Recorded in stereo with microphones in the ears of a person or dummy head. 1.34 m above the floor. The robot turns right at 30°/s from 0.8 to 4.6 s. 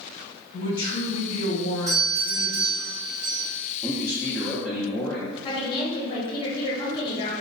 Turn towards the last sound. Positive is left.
turn(degrees=35)  # may be behind; listen again after turning